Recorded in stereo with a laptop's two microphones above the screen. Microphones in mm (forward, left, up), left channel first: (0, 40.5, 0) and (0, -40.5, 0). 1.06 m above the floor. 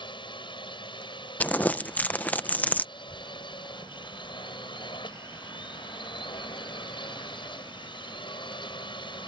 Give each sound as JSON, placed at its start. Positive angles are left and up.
{"t": 0.0, "sound": "a drone", "side_deg": 75}
{"t": 1.4, "sound": "crumpling", "side_deg": 20}
{"t": 3.0, "sound": "a child speaking", "side_deg": 15}